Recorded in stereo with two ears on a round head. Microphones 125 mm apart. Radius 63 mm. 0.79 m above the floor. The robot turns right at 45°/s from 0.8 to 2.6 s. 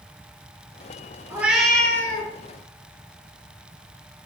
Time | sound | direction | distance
1.3 | a cat meowing | 15° right | 1.9 m